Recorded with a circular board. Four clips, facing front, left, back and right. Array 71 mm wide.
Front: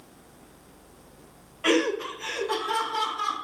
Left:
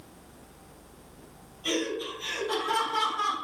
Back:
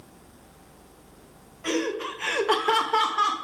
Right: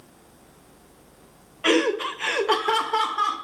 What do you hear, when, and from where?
1.6 s laughter: 60° right, 0.6 m; by 3.3 s 150° right, 1.5 m